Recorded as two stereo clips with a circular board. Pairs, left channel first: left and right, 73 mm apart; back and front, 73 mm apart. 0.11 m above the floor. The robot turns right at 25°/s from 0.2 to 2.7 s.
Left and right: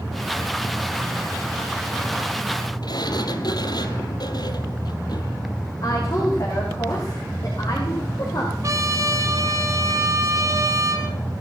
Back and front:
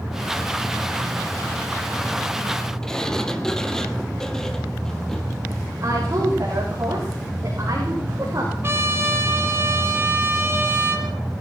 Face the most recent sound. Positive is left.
turn(degrees=-50)